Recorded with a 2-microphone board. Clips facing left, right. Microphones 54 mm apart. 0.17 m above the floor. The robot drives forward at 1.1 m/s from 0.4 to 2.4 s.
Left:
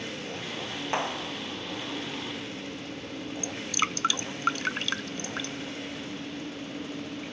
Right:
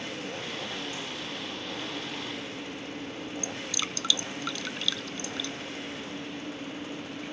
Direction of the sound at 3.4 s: 45° left (ahead or behind).